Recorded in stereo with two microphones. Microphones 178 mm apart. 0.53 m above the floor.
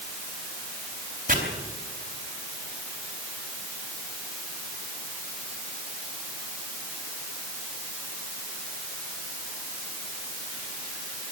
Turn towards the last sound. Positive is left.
turn(degrees=-45)  # may be behind; listen again after turning